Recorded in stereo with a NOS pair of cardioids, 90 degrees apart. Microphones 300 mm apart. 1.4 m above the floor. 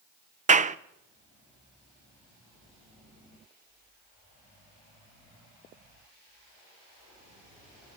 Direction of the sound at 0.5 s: 25° right.